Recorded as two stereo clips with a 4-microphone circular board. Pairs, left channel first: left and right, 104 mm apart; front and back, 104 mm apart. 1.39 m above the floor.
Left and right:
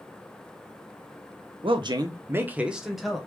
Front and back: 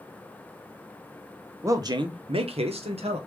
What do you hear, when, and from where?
1.6 s a man speaking: 120° right, 0.6 m; by 3.2 s straight behind, 1.1 m